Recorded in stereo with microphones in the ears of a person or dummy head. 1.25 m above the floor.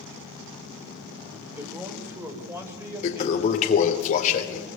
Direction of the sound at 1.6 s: 10° right (ahead or behind).